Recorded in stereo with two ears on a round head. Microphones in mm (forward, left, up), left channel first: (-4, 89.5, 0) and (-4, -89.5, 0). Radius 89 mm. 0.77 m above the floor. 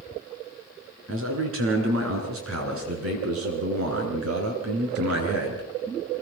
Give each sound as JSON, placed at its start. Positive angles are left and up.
{"t": 1.1, "sound": "a man speaking", "side_deg": -75, "distance_m": 9.0}